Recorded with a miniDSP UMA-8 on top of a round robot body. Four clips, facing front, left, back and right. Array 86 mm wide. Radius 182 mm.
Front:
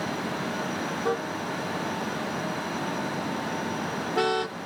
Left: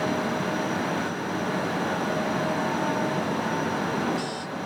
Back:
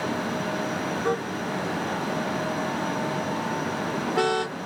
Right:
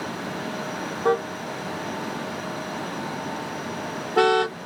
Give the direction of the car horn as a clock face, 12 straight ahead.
3 o'clock.